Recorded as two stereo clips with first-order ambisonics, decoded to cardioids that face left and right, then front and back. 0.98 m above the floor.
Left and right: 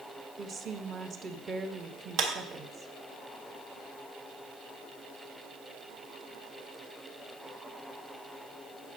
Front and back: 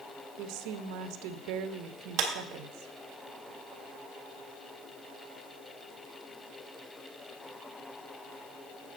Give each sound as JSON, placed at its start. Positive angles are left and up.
{"t": 0.4, "sound": "a woman speaking", "azimuth_deg": -155, "distance_m": 0.8}
{"t": 2.2, "sound": "a clap", "azimuth_deg": -130, "distance_m": 1.7}